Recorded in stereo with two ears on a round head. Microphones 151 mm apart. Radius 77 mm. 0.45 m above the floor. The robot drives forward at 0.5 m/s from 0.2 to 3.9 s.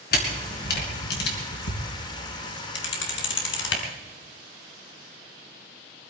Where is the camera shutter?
60° left (ahead or behind), 4 m; by 3.8 s 80° left, 3.5 m.